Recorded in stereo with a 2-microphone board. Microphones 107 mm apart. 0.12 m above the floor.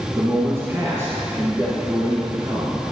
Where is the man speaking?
25° right (ahead or behind), 1.8 m.